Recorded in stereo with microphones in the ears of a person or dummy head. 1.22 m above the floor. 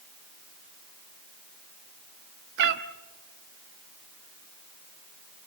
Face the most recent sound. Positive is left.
turn(degrees=-65)  # may be behind; listen again after turning